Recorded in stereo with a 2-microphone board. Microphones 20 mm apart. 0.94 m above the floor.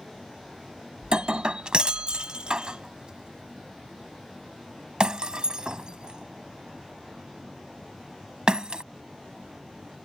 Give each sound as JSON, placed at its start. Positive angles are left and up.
{"t": 1.0, "sound": "breaking glass", "side_deg": -40}